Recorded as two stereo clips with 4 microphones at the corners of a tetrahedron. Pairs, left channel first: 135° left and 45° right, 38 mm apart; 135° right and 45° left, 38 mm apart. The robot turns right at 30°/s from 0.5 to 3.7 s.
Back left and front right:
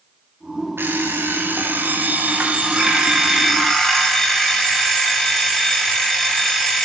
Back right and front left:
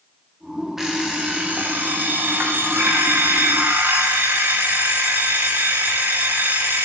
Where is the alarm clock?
35° right, 6 m; by 6.8 s 50° left, 6 m.